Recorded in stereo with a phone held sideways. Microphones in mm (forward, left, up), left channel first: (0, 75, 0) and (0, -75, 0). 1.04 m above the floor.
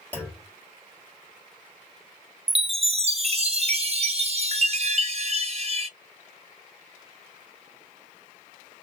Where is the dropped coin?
I don't hear a dropped coin.